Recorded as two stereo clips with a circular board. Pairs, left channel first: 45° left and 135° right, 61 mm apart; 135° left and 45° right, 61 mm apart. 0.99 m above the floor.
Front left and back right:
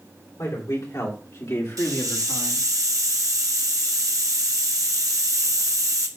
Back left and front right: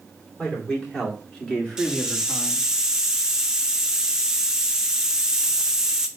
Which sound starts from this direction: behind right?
A hiss, at 1.8 s.